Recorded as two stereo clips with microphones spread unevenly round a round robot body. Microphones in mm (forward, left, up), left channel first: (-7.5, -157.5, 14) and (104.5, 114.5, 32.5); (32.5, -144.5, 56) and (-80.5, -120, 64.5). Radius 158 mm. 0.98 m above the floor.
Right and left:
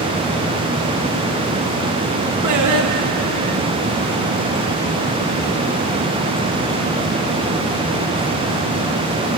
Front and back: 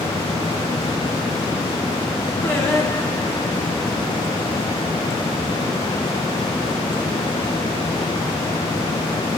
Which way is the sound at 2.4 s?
60° left.